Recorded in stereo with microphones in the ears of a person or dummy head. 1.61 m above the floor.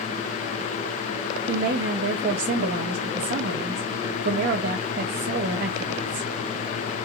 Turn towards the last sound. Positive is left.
turn(degrees=-40)  # may be behind; listen again after turning